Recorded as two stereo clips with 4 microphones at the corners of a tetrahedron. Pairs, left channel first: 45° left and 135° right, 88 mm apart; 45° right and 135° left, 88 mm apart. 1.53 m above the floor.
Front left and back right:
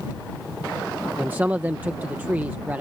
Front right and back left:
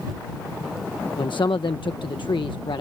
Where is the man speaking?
65° right.